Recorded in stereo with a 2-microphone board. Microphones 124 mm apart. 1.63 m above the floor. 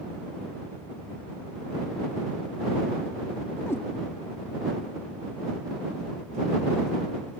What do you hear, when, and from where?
3.7 s a cat meowing: 20° left (ahead or behind)